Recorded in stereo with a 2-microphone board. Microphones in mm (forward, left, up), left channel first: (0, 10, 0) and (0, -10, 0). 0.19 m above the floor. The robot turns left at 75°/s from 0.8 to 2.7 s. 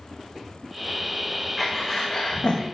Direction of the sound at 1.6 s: 170° left.